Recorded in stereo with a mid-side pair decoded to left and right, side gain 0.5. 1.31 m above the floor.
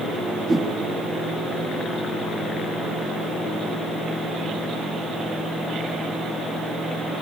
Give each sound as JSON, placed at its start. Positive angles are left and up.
{"t": 0.5, "sound": "a whoosh", "azimuth_deg": -30, "distance_m": 6.5}